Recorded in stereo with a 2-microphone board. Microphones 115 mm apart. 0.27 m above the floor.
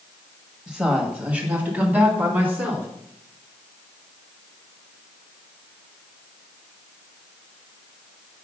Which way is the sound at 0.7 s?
5° right (ahead or behind).